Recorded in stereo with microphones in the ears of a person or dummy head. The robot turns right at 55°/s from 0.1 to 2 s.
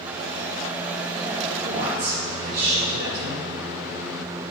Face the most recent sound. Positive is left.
turn(degrees=-55)  # may be behind; listen again after turning